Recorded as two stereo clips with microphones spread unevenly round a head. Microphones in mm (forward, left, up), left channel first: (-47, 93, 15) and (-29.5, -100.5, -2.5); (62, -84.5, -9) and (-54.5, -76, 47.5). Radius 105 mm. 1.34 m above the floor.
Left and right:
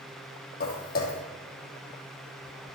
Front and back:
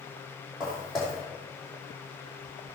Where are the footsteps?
110° left, 2 m.